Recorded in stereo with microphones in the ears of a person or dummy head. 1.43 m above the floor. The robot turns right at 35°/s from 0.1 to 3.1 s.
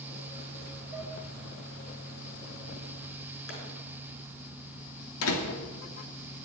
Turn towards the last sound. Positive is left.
turn(degrees=80)